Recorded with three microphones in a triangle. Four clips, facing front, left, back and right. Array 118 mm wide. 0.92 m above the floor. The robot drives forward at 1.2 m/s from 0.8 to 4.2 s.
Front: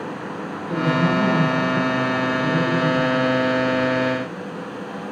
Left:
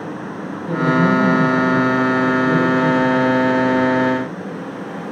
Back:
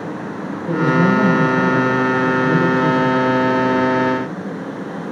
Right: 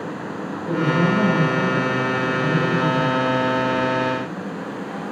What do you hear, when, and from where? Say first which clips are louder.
0.7 s a woman speaking: left 4 dB, back 5 dB; 145° right, 3.5 m; by 3.3 s 160° right, 6.5 m